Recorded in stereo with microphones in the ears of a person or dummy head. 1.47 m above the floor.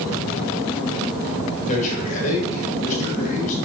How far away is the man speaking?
About 2 m.